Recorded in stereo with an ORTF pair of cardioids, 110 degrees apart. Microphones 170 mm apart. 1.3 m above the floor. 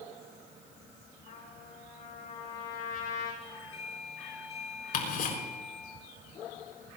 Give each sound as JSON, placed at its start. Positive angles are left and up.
{"t": 1.3, "sound": "a trumpet", "azimuth_deg": 55, "distance_m": 8.0}
{"t": 3.4, "sound": "a doorbell", "azimuth_deg": 40, "distance_m": 8.0}
{"t": 4.9, "sound": "ticking", "azimuth_deg": 60, "distance_m": 4.5}